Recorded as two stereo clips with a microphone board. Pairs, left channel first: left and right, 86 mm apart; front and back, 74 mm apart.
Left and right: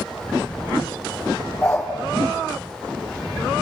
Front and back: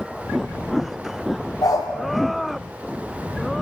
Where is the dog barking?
20° left, 6 m.